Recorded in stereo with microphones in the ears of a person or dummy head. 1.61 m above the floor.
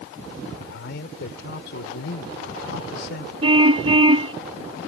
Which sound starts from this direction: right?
A car horn, at 3.4 s.